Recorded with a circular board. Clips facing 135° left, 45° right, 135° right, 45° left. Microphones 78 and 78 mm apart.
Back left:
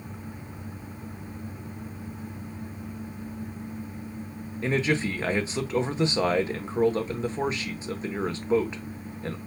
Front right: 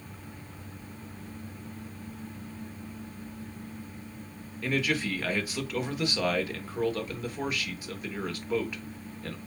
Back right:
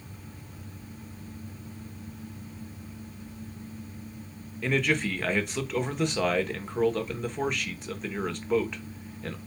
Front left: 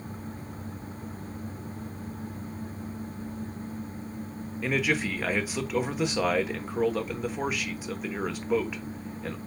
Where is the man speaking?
125° left, 0.9 m.